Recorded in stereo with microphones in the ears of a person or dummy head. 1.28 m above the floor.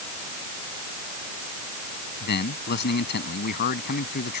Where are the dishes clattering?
I don't hear dishes clattering.